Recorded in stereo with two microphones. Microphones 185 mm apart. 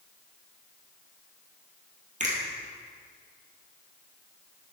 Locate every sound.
2.2 s a finger snap: 45° right (ahead or behind), 2.5 m